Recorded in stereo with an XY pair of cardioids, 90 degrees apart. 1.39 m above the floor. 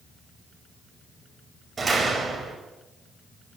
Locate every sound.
1.8 s a door slam: 25° right, 6 m